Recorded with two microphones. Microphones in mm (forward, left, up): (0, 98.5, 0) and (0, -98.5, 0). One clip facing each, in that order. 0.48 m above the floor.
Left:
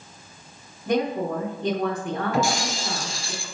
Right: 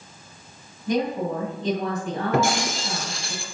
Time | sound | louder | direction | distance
0.9 | a woman speaking | even | 60° left (ahead or behind) | 2.5 m
2.3 | breaking glass | right 4 dB | 60° right (ahead or behind) | 2 m